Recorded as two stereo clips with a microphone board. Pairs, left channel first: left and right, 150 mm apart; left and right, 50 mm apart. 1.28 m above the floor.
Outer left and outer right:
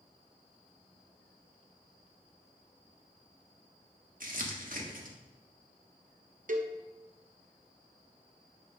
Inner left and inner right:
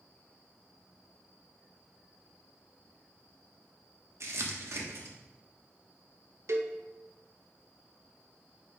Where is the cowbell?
60° right (ahead or behind), 0.8 m.